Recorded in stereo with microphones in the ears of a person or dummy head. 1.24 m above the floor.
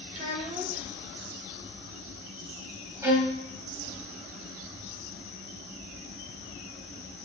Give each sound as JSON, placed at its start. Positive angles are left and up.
{"t": 0.1, "sound": "a child speaking", "side_deg": -35, "distance_m": 0.7}
{"t": 3.0, "sound": "a violin", "side_deg": -10, "distance_m": 0.6}